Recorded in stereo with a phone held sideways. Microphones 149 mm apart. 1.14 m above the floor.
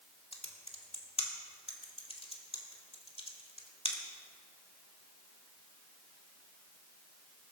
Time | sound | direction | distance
0.3 | typing on a keyboard | 40° left (ahead or behind) | 2 m